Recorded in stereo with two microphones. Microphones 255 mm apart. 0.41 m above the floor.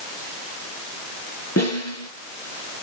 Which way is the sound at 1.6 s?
80° left.